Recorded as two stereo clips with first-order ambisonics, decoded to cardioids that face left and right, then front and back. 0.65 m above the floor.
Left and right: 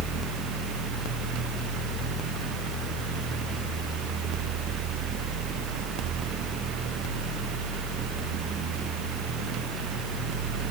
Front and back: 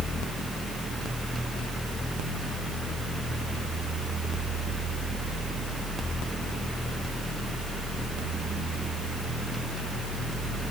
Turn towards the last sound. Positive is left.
No sound to turn to.